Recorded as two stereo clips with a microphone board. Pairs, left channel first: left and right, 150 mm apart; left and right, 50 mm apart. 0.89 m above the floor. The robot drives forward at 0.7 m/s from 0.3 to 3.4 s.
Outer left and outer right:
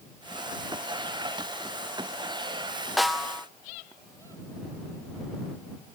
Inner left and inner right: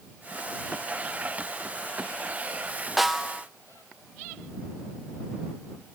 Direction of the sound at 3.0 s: Centre (ahead or behind).